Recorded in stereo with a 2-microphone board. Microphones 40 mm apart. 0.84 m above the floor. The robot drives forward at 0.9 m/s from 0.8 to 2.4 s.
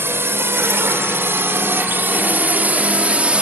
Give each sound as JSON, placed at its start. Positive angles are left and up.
{"t": 0.0, "sound": "a drone", "side_deg": -80}